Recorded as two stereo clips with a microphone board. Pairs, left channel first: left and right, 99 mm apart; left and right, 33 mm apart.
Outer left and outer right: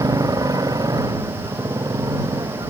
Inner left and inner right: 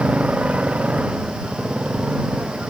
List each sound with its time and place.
0.0 s a motorcycle: 40° right (ahead or behind)